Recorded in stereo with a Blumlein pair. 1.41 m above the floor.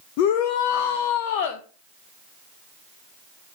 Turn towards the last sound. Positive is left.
turn(degrees=45)